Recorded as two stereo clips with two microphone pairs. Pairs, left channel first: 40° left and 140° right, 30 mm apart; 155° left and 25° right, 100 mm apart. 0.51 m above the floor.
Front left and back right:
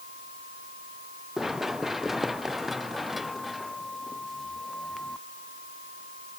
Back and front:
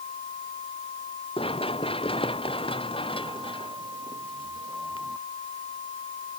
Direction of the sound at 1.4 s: 140° left.